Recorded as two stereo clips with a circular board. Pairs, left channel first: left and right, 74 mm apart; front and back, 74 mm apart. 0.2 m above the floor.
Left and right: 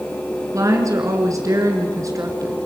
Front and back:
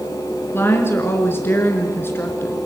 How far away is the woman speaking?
About 2.5 m.